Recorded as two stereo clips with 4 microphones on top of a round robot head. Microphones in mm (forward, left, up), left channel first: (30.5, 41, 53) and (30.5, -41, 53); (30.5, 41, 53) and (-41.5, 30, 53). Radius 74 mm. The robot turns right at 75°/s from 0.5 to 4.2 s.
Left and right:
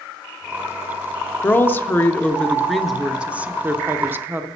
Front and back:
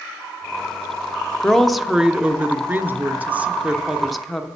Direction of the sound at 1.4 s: 75° left.